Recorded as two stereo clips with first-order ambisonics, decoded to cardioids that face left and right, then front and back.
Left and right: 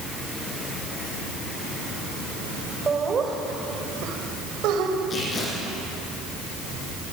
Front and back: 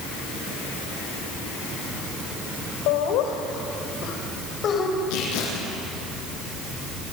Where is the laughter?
15° right, 4 m; by 5.0 s 60° right, 4.5 m.